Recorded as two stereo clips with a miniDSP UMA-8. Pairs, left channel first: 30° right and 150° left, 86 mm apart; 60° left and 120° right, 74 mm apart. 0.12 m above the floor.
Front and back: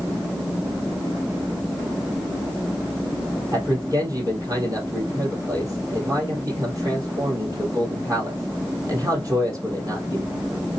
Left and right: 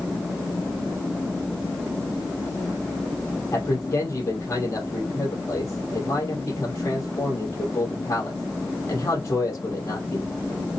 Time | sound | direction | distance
3.5 | a man speaking | 110° left | 3 m